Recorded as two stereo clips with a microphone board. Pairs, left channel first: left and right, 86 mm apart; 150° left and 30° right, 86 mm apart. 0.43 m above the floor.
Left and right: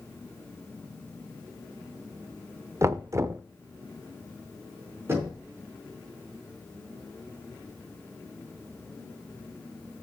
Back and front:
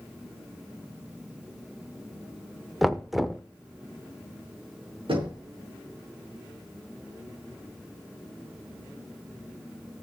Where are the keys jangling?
I don't hear keys jangling.